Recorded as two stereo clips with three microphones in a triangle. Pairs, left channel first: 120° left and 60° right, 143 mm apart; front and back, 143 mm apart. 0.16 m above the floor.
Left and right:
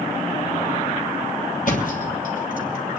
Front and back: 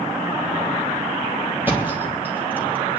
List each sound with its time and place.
1.6 s a thud: 105° left, 2.5 m